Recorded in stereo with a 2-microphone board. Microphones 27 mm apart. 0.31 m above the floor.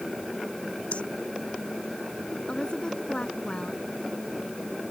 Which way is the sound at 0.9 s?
55° left (ahead or behind).